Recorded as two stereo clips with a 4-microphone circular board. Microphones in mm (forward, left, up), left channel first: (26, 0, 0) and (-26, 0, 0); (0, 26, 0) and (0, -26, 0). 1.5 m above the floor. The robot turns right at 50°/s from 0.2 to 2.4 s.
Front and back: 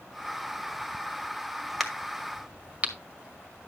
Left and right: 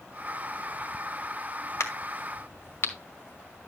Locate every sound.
1.8 s a crack: 90° left, 1.8 m; by 3.7 s 120° left, 1.8 m